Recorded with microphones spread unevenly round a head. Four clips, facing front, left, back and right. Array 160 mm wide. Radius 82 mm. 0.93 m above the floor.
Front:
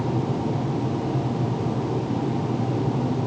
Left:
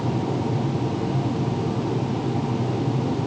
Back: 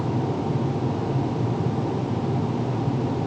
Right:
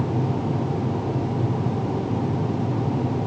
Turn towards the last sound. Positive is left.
No sound to turn to.